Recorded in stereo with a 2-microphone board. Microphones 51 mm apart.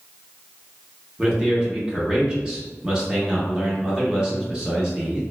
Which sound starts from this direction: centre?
A man speaking, at 1.2 s.